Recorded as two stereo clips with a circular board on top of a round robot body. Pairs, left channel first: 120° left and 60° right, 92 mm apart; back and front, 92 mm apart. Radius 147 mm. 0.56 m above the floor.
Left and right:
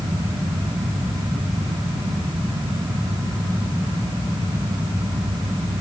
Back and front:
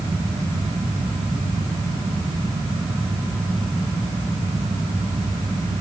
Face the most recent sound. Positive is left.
No sound to turn to.